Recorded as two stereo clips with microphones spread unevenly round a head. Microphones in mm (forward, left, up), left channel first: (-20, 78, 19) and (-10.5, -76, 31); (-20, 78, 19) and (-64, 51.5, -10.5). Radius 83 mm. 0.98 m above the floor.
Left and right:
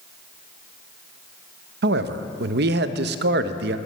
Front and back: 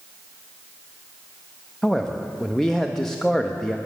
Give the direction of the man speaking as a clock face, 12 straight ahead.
2 o'clock.